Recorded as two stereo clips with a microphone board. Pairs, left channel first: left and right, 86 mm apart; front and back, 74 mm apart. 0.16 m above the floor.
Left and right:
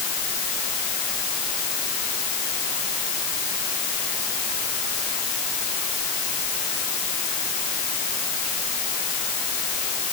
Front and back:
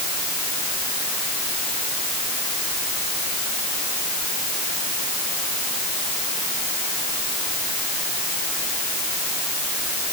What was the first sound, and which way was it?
Only background noise.